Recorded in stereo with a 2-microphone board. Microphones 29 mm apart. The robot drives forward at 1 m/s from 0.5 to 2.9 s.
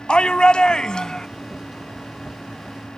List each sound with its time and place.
0.1 s a shout: 35° left (ahead or behind); by 1.3 s 25° left (ahead or behind)